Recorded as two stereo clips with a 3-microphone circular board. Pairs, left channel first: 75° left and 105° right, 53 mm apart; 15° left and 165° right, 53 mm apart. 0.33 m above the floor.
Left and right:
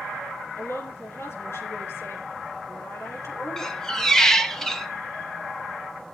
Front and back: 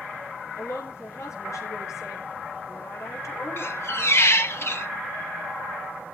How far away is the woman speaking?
About 7 m.